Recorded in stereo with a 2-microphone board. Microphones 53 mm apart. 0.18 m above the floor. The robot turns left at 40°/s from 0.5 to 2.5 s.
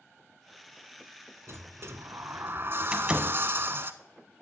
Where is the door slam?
20° right (ahead or behind), 1.2 m.